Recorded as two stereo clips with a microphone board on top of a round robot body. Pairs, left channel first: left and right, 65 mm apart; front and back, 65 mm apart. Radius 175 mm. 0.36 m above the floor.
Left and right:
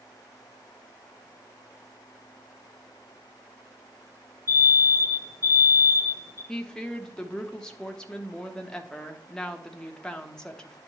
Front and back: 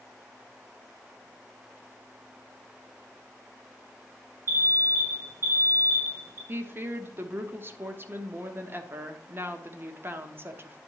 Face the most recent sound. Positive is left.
turn(degrees=160)